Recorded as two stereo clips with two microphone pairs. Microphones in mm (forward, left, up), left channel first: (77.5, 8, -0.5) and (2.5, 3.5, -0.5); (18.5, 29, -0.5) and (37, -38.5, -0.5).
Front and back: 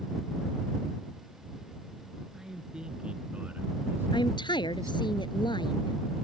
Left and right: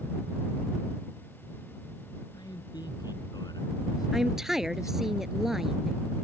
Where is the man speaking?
100° left; by 5.1 s 150° left.